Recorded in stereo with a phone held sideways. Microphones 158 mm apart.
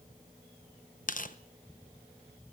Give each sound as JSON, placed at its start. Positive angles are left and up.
{"t": 1.1, "sound": "tearing paper", "side_deg": 60, "distance_m": 0.9}